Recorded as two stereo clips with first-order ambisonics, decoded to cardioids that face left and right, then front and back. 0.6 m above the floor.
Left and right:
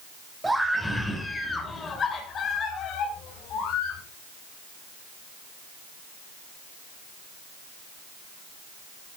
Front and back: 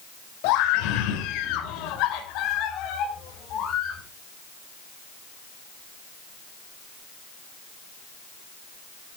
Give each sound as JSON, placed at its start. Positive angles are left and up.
{"t": 0.4, "sound": "a scream", "azimuth_deg": -5, "distance_m": 3.0}